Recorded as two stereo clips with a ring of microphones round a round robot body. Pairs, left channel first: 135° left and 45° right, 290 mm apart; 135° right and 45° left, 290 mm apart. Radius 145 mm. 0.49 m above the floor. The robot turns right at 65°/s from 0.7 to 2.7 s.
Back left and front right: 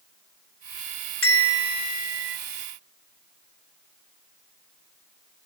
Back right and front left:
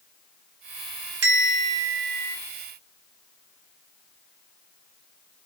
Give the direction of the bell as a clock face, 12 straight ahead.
10 o'clock.